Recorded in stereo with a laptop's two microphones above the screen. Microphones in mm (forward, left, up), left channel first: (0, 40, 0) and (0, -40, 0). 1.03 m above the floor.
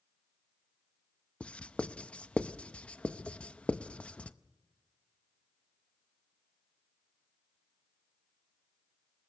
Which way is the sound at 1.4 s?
15° left (ahead or behind).